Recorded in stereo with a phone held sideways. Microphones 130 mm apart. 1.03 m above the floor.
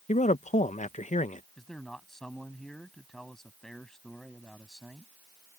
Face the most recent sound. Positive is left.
turn(degrees=5)  # may be behind; listen again after turning